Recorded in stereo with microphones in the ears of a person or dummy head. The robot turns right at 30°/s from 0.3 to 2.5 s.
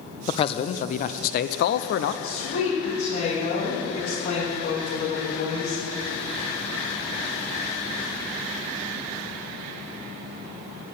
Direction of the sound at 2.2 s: 55° left (ahead or behind).